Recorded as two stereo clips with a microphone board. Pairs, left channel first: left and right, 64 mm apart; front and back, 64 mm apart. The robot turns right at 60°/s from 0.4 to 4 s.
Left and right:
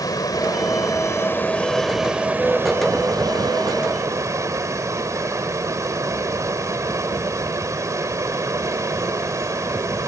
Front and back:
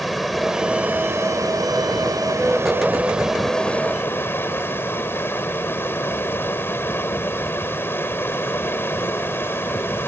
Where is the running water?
90° left; by 10.1 s 55° right.